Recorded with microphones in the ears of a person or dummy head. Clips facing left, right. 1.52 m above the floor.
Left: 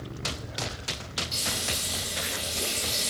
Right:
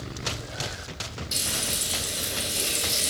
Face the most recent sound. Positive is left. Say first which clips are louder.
# right 2 dB
turn(degrees=-55)  # may be behind; listen again after turning